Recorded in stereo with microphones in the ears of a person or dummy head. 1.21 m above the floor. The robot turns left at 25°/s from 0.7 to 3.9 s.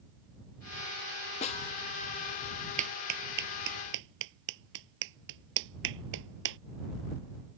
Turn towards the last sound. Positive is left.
turn(degrees=-70)  # may be behind; listen again after turning